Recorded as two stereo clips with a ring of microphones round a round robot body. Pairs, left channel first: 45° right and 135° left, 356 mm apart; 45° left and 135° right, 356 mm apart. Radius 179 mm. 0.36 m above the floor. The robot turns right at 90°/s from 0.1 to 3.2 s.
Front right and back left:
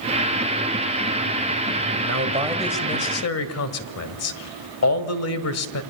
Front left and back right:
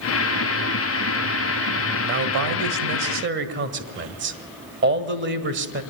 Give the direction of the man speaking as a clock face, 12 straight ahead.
6 o'clock.